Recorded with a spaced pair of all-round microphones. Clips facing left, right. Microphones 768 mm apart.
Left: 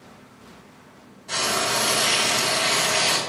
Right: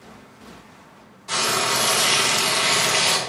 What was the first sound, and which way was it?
Frying, 45° right (ahead or behind).